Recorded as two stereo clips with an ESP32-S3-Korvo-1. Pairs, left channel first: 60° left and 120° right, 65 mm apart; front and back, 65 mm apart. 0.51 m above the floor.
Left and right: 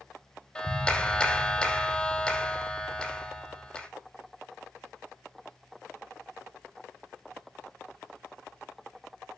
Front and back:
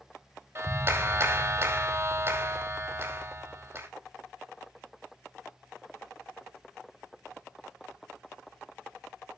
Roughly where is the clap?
Behind left.